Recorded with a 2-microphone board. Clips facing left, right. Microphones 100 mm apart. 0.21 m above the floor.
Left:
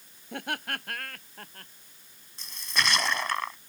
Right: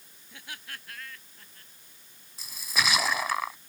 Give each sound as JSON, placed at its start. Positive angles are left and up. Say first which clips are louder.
{"t": 0.3, "sound": "laughter", "louder": "left 11 dB", "side_deg": 70}
{"t": 2.4, "sound": "a splash", "louder": "even", "side_deg": -5}